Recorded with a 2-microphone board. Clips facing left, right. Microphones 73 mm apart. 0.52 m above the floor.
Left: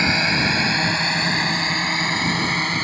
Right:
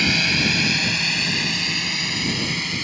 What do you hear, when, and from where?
0.0 s a drone: 30° left (ahead or behind); by 2.8 s 45° left (ahead or behind)